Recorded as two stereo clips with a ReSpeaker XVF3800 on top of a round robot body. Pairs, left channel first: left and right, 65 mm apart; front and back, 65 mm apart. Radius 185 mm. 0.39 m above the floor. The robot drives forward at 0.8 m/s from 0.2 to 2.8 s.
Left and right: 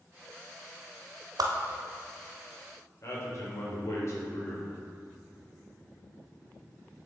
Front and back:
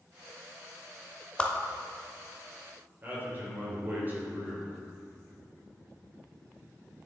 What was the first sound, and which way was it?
A whoosh, 75° right.